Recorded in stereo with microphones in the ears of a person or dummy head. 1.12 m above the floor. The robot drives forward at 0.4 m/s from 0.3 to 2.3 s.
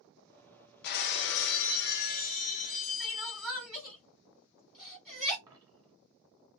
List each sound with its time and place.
0.8 s breaking glass: 55° left (ahead or behind), 0.5 m; by 3.7 s 45° left (ahead or behind), 0.6 m
3.0 s crying: 5° left (ahead or behind), 1.6 m
5.5 s a dropped coin: 20° right (ahead or behind), 1.1 m